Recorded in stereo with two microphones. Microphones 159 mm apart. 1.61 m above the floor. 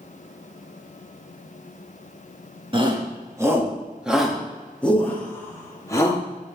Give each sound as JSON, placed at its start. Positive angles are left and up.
{"t": 2.7, "sound": "a shout", "side_deg": -30, "distance_m": 2.0}